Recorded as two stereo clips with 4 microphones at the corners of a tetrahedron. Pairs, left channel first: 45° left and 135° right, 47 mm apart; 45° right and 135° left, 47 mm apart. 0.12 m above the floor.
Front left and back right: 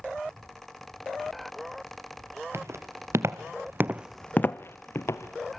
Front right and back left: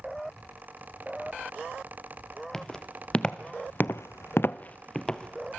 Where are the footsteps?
120° right, 2.5 m; by 5.6 s 35° left, 2.5 m.